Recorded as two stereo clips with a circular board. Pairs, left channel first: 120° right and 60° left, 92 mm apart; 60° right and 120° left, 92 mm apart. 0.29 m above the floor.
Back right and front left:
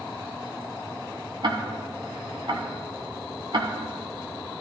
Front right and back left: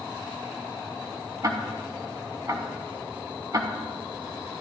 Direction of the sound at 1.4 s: 75° left.